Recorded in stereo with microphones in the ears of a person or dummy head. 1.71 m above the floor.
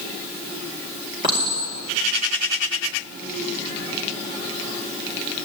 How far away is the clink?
About 4.5 m.